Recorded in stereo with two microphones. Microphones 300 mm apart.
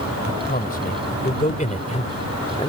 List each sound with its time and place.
0.2 s a man speaking: 30° left (ahead or behind); by 2.7 s 20° left (ahead or behind)